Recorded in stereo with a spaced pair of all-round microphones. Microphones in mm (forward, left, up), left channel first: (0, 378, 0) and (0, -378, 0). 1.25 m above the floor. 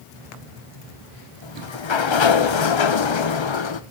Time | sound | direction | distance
1.4 | a sliding door | 40° left (ahead or behind) | 0.7 m